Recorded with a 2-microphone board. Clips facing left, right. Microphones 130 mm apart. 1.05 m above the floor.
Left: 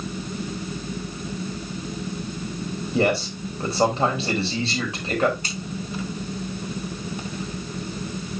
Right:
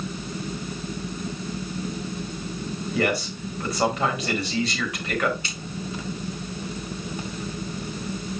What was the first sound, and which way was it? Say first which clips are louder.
A man speaking: left 3 dB; 25° left (ahead or behind).